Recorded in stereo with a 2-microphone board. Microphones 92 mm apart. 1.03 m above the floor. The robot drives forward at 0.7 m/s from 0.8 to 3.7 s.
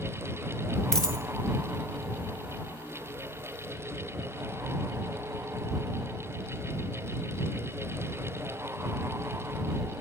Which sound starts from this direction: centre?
A dropped coin, at 0.9 s.